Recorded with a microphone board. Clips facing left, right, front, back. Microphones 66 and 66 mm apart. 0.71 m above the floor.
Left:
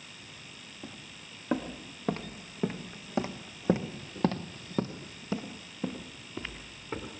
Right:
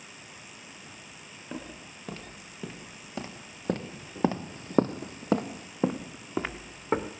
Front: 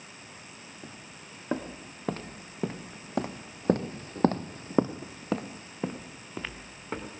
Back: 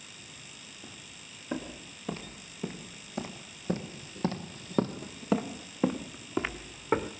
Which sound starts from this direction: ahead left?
Footsteps, at 0.8 s.